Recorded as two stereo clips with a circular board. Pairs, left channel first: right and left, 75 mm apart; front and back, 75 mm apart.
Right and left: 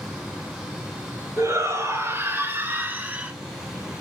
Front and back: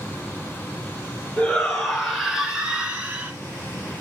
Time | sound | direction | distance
1.4 | a shout | 75° left | 1.8 m